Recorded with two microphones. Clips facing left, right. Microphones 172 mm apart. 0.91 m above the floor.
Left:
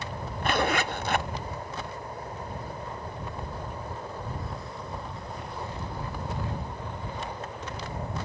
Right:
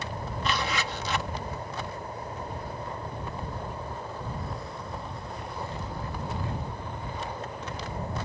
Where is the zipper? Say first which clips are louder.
Left 5 dB; 55° left (ahead or behind).